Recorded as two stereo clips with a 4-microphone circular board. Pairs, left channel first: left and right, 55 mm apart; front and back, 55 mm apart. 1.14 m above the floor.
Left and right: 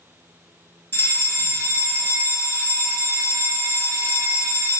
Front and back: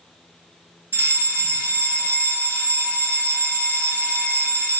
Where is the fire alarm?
130° left, 2.5 m.